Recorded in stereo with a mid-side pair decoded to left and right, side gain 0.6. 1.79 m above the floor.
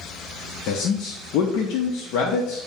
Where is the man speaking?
70° left, 0.6 m.